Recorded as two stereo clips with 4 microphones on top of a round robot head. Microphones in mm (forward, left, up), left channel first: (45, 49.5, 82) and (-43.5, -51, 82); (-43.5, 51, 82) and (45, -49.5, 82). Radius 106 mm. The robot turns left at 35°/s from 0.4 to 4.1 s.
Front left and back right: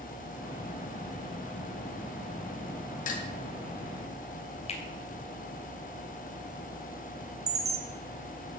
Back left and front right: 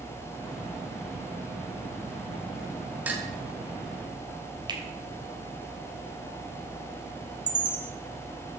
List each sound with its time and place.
3.1 s dishes clattering: 30° left, 2 m; by 3.3 s 25° left, 2 m
4.7 s a finger snap: 10° left, 3 m
7.5 s a chime: 105° right, 3 m